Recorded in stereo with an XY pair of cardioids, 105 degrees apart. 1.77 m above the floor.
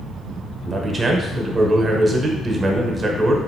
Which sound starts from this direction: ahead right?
A man speaking, at 0.7 s.